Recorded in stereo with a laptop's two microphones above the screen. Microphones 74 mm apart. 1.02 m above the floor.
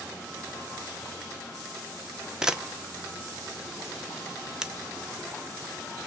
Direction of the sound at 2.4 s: 10° right (ahead or behind).